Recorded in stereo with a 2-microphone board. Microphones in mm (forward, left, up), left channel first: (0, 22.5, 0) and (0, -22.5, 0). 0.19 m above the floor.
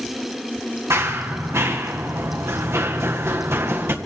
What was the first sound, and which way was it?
Running footsteps, 85° right.